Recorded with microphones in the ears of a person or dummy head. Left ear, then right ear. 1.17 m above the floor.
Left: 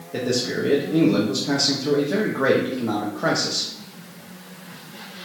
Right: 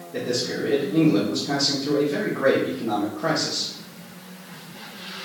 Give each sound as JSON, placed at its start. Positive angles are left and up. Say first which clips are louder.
{"t": 0.1, "sound": "a man speaking", "louder": "left 2 dB", "side_deg": 70, "distance_m": 1.0}